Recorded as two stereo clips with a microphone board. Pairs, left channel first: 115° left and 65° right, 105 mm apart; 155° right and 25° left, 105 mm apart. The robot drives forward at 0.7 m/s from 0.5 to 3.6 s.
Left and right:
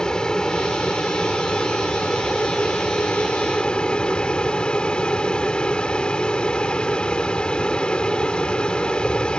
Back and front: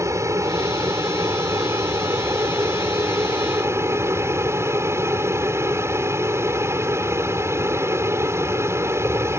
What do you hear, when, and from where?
0.0 s an aircraft: 35° left; by 9.4 s 40° left